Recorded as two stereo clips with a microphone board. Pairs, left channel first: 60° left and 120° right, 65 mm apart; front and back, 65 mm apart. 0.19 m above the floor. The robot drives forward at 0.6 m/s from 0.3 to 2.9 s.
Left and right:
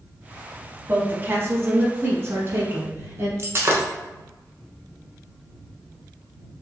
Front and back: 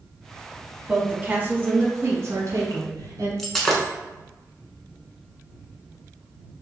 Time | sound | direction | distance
0.9 | a woman speaking | 115° right | 1.1 m
3.4 | breaking glass | 85° right | 1.1 m